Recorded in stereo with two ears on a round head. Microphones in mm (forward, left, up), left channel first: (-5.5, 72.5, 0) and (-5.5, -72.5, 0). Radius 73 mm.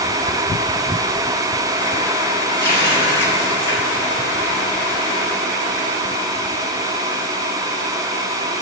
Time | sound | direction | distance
2.6 | a running tap | 15° left (ahead or behind) | 5 m